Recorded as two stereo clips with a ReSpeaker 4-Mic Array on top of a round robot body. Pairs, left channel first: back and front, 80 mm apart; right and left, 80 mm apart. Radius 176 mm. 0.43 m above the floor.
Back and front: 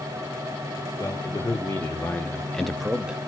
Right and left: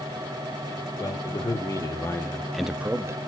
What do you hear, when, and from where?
1.0 s a man speaking: 120° right, 1.7 m; by 3.2 s 70° left, 0.9 m